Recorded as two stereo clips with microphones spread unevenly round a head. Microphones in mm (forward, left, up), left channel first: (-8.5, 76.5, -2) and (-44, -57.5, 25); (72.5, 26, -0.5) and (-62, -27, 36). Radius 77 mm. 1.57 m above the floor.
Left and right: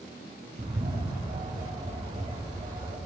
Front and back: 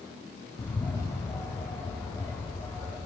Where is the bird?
55° right, 6 m.